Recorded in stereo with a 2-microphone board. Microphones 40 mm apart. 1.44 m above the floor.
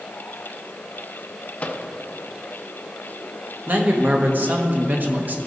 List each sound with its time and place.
1.6 s a microwave: 30° left (ahead or behind), 0.7 m
3.7 s a man speaking: 50° right (ahead or behind), 1.2 m